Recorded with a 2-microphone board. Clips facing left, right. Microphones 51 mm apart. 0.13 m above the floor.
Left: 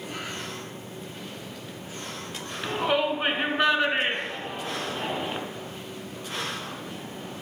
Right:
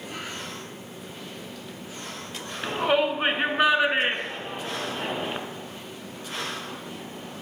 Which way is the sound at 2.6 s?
15° right (ahead or behind).